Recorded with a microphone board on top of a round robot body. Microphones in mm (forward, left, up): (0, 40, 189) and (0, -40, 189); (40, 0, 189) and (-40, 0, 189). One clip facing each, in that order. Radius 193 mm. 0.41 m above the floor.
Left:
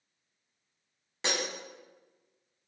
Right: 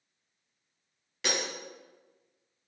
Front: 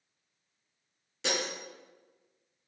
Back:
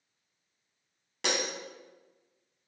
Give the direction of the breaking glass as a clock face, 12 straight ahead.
7 o'clock.